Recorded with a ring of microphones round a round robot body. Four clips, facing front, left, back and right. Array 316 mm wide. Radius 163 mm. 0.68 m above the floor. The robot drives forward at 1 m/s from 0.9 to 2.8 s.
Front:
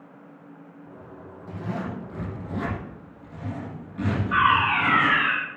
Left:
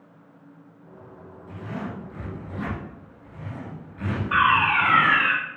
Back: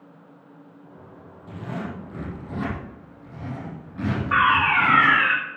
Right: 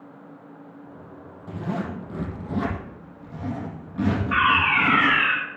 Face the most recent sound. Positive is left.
turn(degrees=160)